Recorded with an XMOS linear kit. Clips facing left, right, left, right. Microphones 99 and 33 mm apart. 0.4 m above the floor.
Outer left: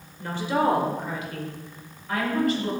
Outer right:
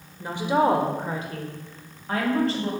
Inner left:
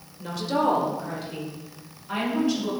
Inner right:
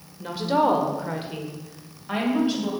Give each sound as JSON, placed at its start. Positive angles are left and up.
{"t": 0.2, "sound": "a woman speaking", "side_deg": -15, "distance_m": 1.4}